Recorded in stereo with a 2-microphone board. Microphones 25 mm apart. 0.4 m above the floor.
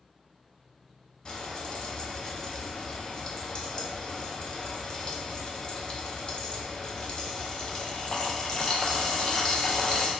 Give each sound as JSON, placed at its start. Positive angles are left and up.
{"t": 1.2, "sound": "frying", "side_deg": 35, "distance_m": 0.6}